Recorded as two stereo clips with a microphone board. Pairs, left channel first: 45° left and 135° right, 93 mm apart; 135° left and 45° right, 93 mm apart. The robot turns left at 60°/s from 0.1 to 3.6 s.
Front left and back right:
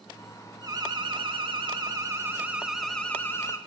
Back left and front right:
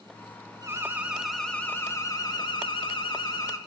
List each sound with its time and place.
0.6 s an alarm: 95° right, 0.9 m; by 3.6 s 90° left, 0.9 m